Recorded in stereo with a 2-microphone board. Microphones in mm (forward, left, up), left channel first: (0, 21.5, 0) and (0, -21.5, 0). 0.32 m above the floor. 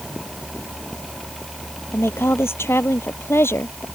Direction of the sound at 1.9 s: 70° left (ahead or behind).